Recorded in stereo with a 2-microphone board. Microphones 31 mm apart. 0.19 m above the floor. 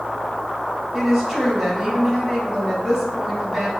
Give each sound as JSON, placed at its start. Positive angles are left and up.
{"t": 0.9, "sound": "a woman speaking", "side_deg": -20, "distance_m": 1.0}